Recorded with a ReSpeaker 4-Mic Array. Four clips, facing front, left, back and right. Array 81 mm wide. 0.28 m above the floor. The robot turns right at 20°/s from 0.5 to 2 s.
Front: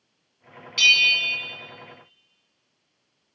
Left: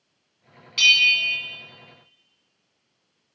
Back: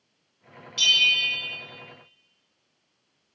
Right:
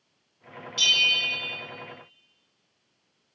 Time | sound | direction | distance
0.8 | a bell | 45° left | 1.5 m